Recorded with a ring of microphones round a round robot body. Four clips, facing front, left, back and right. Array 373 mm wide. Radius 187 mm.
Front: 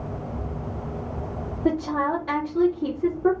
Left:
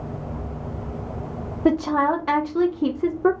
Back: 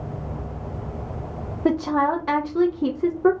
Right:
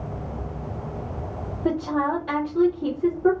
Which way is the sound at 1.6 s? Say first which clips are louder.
Left 4 dB, back 3 dB; 125° left.